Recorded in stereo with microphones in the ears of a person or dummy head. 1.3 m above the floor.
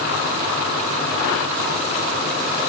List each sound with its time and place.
Only background noise.